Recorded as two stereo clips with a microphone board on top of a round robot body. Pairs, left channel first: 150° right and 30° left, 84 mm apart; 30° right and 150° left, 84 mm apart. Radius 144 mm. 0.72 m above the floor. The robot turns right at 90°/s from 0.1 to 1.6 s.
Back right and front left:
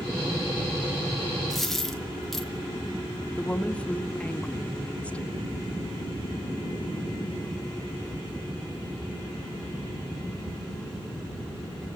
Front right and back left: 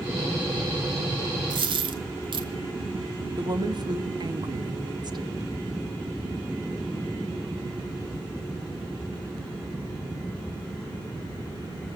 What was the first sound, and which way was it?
A dropped coin, 115° left.